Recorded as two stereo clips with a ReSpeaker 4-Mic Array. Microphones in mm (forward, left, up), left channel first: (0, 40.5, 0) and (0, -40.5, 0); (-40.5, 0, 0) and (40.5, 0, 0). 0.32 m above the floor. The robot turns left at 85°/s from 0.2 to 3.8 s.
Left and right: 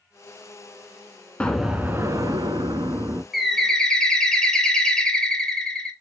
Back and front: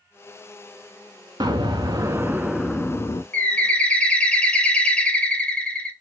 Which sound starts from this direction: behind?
A bird, at 3.3 s.